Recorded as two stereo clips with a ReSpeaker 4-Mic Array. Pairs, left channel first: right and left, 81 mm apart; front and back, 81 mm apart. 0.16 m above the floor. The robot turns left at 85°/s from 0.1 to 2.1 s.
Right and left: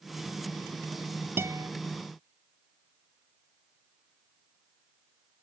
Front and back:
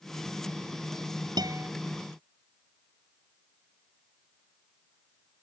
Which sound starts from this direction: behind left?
A guitar, at 1.4 s.